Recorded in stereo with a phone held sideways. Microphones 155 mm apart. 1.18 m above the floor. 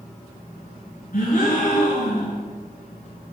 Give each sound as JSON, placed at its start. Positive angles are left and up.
{"t": 1.1, "sound": "a gasp", "side_deg": 65, "distance_m": 3.0}